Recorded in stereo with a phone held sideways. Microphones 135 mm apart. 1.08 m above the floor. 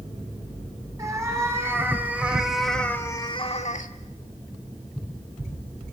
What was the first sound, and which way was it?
A cat meowing, 25° right (ahead or behind).